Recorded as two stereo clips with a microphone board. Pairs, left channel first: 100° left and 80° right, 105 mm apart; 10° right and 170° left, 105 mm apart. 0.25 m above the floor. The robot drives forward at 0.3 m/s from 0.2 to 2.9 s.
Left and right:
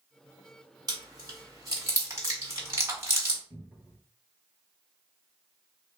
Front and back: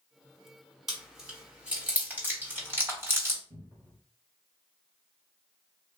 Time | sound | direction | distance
0.9 | chewing | 105° right | 1.5 m
3.5 | a cupboard door | 160° right | 2 m